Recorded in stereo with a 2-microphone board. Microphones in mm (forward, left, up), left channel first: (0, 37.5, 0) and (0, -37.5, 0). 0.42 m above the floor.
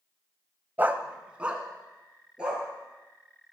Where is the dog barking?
25° right (ahead or behind), 0.6 m; by 2.6 s 10° right (ahead or behind), 3 m.